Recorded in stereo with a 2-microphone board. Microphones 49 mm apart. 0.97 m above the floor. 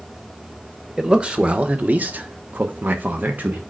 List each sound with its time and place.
1.0 s a man speaking: 20° right (ahead or behind), 1.1 m; by 3.6 s 35° right (ahead or behind), 1.1 m